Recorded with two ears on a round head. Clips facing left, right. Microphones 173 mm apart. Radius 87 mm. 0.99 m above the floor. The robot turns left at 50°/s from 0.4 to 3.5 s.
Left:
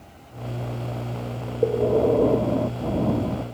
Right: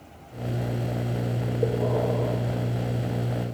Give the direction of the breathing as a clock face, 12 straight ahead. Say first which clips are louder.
Left 7 dB; 7 o'clock.